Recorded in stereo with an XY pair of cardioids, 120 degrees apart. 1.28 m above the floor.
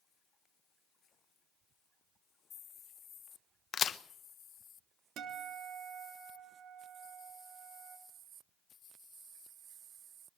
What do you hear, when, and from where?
3.7 s a crack: 45° left, 0.9 m
5.2 s a guitar: 65° right, 3 m